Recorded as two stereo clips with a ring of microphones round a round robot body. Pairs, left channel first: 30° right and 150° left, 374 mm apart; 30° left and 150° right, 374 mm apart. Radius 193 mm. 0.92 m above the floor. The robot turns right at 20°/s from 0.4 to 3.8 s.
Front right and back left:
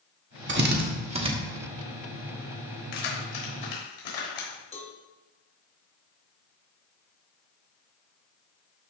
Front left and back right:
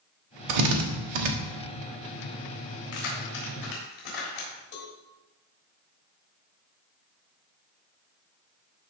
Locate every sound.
0.5 s a drill: 150° right, 1.4 m; by 1.3 s 135° right, 1.4 m
2.9 s keys jangling: 15° right, 3.5 m; by 4.6 s straight ahead, 3.5 m
4.7 s a cowbell: 40° left, 1.7 m